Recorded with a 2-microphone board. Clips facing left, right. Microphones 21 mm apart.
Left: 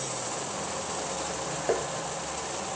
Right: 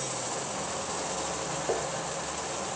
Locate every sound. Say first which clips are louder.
1.7 s tapping: left 3 dB; 30° left (ahead or behind), 2 m